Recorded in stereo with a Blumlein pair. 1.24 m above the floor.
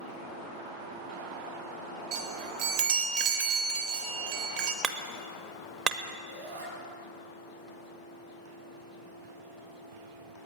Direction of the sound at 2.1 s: 50° right.